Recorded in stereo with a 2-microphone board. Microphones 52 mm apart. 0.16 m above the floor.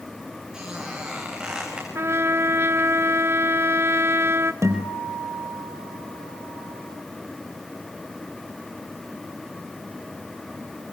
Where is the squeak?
15° right (ahead or behind), 8.5 m.